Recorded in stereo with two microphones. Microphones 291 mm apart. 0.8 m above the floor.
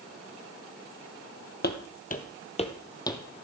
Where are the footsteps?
35° left (ahead or behind), 0.9 m; by 3.2 s 10° left (ahead or behind), 1.0 m.